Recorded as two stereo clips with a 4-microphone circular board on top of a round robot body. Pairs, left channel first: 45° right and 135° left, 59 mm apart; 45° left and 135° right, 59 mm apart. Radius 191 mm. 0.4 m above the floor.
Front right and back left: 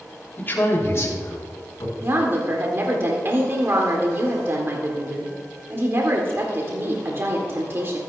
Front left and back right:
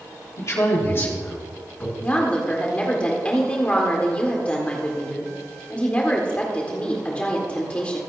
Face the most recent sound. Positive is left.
turn(degrees=105)